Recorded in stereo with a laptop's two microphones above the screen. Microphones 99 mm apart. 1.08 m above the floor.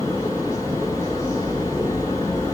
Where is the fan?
30° left (ahead or behind), 4 m.